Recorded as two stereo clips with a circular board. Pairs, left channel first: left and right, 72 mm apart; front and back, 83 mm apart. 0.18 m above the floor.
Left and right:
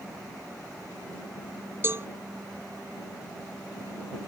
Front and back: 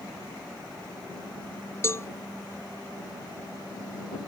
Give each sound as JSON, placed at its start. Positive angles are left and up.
{"t": 1.8, "sound": "a cowbell", "azimuth_deg": -45}